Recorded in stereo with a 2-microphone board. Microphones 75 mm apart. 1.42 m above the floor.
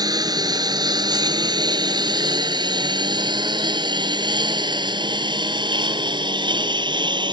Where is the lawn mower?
60° right (ahead or behind); by 7.3 s 85° right.